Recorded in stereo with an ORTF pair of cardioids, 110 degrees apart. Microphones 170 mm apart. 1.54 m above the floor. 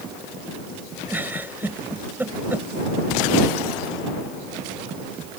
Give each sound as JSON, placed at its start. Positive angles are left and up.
{"t": 1.1, "sound": "a giggle", "azimuth_deg": -10}